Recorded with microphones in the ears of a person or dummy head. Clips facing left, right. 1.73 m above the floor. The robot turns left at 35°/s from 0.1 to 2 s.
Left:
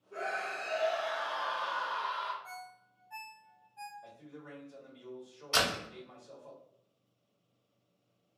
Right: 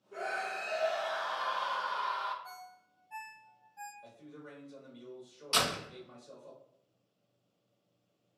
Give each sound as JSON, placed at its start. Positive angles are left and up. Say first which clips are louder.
{"t": 0.1, "sound": "a scream", "louder": "even", "azimuth_deg": -10, "distance_m": 0.7}
{"t": 2.4, "sound": "a ringtone", "louder": "left 2 dB", "side_deg": -5, "distance_m": 1.4}
{"t": 4.0, "sound": "a man speaking", "louder": "even", "side_deg": -30, "distance_m": 1.7}
{"t": 5.5, "sound": "a door slam", "louder": "left 1 dB", "side_deg": -50, "distance_m": 1.9}